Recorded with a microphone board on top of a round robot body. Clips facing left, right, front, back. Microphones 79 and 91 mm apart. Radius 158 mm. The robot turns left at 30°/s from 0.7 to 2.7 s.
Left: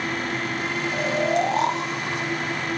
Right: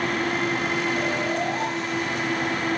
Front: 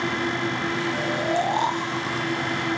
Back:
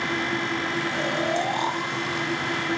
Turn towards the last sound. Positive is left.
turn(degrees=35)